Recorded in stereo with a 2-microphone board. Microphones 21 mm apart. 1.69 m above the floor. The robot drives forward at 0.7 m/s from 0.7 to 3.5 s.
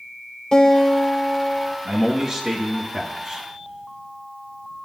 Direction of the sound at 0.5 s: 35° left (ahead or behind).